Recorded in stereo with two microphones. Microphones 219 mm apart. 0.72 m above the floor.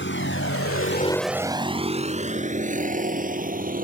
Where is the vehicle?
60° left (ahead or behind); by 3.9 s 40° right (ahead or behind).